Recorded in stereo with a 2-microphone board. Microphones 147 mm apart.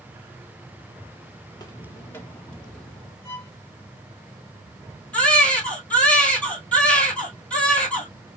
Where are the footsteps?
30° left (ahead or behind), 0.8 m; by 3.1 s 5° left (ahead or behind), 1.7 m.